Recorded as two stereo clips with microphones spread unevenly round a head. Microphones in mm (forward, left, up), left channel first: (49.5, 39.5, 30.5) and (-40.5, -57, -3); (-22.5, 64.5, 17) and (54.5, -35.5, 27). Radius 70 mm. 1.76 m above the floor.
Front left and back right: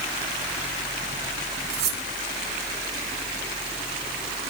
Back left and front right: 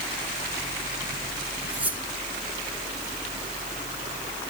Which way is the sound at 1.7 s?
130° right.